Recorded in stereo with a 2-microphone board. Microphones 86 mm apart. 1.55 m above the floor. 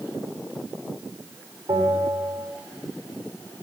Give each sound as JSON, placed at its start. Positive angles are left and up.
{"t": 1.7, "sound": "a bell", "side_deg": -80, "distance_m": 6.0}